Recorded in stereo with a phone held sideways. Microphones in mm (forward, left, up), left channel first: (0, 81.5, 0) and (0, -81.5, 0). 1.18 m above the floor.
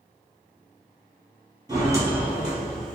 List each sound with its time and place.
1.7 s footsteps: 25° right (ahead or behind), 1.3 m; by 3.0 s 5° left (ahead or behind), 1.5 m